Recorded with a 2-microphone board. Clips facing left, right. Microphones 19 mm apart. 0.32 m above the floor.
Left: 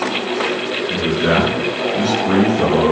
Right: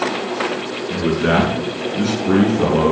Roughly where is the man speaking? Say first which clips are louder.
Even; centre.